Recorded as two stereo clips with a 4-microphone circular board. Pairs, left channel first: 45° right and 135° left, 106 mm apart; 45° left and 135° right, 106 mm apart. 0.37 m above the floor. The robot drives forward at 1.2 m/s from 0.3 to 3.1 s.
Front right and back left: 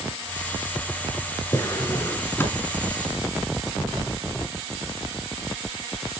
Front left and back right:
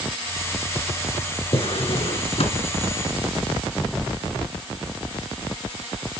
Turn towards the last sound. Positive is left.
turn(degrees=35)